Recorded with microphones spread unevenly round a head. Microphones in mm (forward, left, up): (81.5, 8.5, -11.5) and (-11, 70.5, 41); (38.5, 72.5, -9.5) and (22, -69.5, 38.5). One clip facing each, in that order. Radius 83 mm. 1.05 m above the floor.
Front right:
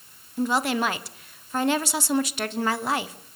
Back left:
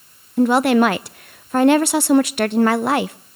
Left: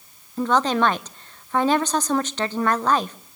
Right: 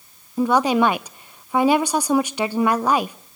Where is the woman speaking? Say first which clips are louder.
Back left 10 dB, right 3 dB; 160° left, 0.5 m.